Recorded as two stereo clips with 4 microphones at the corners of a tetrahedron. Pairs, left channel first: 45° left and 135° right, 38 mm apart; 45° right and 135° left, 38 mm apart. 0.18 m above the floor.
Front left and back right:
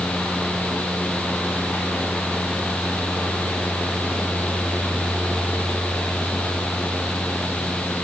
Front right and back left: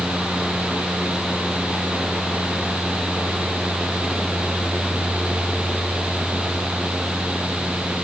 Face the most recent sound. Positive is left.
No sound to turn to.